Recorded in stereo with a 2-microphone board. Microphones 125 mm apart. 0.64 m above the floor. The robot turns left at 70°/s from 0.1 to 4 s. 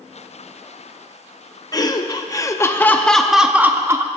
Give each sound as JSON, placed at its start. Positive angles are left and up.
{"t": 1.7, "sound": "laughter", "azimuth_deg": 110, "distance_m": 0.6}